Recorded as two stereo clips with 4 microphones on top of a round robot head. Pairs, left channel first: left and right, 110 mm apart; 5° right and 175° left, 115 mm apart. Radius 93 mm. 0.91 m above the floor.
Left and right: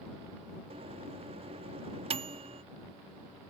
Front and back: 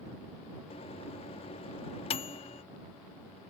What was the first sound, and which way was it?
A microwave, 50° right.